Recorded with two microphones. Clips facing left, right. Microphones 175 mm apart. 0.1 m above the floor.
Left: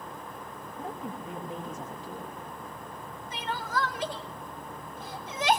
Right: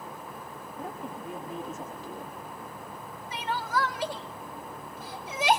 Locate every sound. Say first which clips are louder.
0.8 s a woman speaking: left 1 dB; 5° right (ahead or behind), 6 m
3.3 s crying: right 2 dB; 10° right (ahead or behind), 1.6 m